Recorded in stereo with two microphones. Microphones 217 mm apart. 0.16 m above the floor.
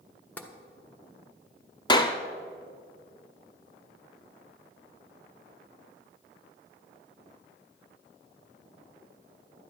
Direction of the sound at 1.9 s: 20° left (ahead or behind).